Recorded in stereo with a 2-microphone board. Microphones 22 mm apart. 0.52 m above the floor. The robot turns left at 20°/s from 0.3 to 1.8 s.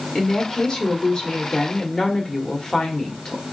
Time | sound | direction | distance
0.1 | a woman speaking | 110° left | 1.2 m